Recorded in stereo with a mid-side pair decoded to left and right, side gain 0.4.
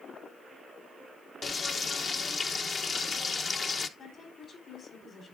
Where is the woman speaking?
55° left, 3.5 m.